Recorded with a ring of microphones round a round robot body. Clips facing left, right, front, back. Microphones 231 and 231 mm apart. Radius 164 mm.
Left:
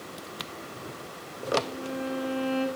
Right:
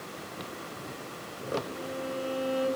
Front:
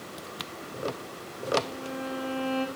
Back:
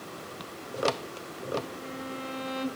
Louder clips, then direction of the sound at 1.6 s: Left 3 dB, front 3 dB; 145° left.